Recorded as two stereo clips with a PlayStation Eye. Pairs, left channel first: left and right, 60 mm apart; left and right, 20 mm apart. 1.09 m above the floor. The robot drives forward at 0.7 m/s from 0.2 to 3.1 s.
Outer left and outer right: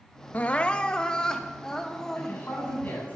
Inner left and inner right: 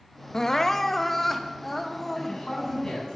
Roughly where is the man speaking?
Left.